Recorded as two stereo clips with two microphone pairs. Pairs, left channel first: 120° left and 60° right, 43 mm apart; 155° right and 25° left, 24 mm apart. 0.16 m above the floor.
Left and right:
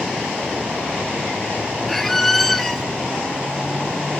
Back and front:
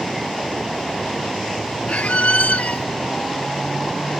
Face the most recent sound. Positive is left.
turn(degrees=-155)